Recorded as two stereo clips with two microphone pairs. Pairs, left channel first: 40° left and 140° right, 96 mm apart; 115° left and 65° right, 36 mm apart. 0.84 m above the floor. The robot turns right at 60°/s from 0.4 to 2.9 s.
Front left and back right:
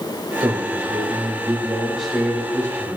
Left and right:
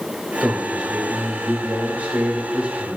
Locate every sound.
0.4 s a man speaking: 150° right, 1.3 m; by 3.0 s straight ahead, 1.3 m